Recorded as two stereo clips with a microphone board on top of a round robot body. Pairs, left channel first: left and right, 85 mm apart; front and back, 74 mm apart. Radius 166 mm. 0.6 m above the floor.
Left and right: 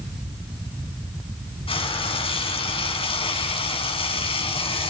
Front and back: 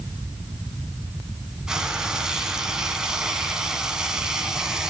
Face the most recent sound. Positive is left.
turn(degrees=100)